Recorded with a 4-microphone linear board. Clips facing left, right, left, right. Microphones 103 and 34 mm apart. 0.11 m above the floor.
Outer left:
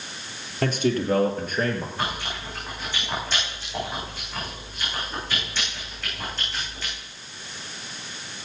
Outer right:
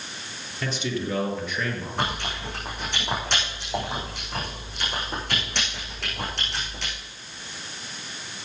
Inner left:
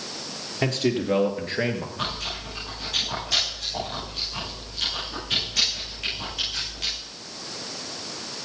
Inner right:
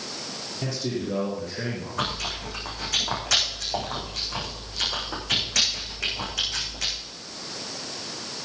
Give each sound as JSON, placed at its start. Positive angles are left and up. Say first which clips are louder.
{"t": 0.6, "sound": "a man speaking", "louder": "outer left 6 dB, inner left 6 dB", "side_deg": 55, "distance_m": 2.5}
{"t": 2.0, "sound": "chewing", "louder": "outer right 1 dB, inner right 1 dB", "side_deg": -75, "distance_m": 7.0}